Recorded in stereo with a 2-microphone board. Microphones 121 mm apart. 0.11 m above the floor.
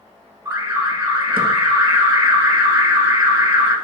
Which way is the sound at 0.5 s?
20° right (ahead or behind).